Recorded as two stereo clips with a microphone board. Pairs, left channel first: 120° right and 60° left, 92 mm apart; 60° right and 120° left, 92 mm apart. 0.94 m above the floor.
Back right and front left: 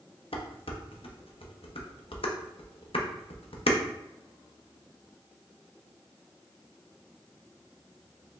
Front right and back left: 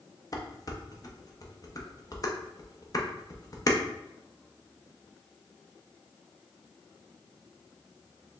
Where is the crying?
I don't hear crying.